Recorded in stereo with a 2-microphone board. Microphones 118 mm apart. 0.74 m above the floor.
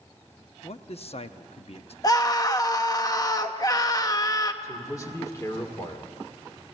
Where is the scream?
30° left (ahead or behind), 0.9 m.